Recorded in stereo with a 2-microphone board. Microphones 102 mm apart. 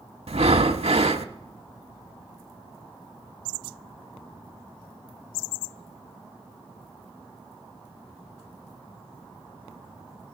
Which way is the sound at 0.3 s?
80° right.